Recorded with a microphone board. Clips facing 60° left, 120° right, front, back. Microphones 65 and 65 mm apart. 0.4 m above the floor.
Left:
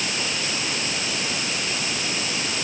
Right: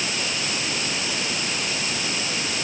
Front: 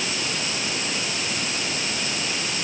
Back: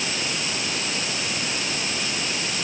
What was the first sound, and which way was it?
Only background noise.